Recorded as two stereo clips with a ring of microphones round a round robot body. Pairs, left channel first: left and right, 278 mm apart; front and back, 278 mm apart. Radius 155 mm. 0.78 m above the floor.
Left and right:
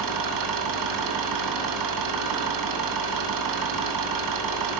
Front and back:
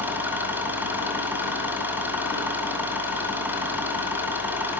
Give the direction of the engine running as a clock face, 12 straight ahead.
3 o'clock.